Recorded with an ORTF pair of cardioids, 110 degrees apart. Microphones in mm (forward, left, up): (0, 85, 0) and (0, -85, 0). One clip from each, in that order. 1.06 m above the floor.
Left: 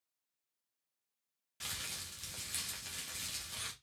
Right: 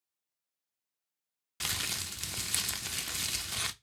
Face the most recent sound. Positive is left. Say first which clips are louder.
# right 8 dB
turn(degrees=-50)